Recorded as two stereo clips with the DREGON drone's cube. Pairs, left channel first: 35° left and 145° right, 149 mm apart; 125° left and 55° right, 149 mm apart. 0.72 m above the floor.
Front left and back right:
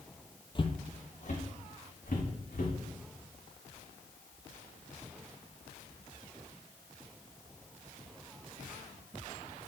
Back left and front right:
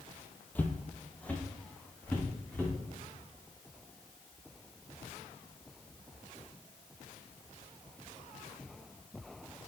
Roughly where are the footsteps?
Ahead left.